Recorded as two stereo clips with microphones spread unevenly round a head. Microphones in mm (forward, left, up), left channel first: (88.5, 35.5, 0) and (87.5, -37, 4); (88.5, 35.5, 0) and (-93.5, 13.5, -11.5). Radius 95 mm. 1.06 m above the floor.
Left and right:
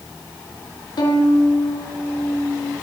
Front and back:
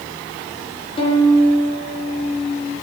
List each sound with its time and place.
1.0 s a violin: 70° left, 5 m